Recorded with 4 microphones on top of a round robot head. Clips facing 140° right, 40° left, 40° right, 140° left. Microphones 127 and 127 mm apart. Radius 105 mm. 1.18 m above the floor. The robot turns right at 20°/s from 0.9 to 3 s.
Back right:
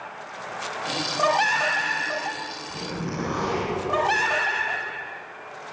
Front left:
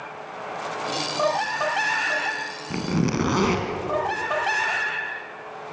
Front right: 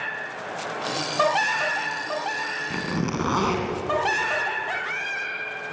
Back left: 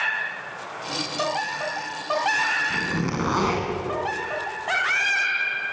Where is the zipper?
35° left, 2.5 m; by 3.7 s 40° left, 2.5 m.